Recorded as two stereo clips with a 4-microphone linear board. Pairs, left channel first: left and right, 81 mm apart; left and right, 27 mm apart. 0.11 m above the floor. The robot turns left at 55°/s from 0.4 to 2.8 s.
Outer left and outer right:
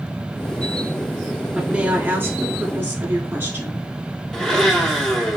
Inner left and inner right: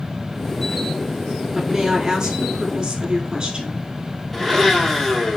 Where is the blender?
5° left (ahead or behind), 1.8 m.